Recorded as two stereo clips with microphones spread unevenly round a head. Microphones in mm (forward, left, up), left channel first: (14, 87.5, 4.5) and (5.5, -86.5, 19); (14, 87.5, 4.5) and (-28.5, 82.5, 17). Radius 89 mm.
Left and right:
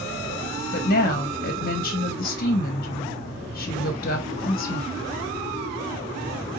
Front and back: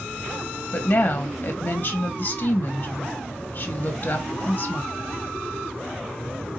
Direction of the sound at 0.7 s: 50° left.